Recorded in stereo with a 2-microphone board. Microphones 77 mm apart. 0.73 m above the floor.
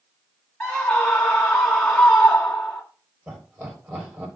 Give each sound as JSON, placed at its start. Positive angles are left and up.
{"t": 0.6, "sound": "a scream", "side_deg": 10, "distance_m": 1.2}
{"t": 3.3, "sound": "laughter", "side_deg": -25, "distance_m": 4.5}